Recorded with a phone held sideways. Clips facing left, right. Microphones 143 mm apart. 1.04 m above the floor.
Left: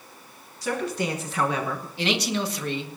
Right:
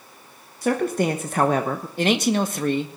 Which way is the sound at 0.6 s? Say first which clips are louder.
Right 6 dB; 50° right (ahead or behind).